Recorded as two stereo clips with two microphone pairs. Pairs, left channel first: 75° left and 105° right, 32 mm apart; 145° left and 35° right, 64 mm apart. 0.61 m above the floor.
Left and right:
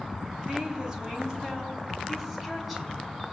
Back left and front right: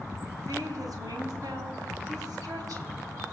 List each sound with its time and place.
0.5 s a woman speaking: 45° right, 4 m; by 3.1 s 15° right, 5 m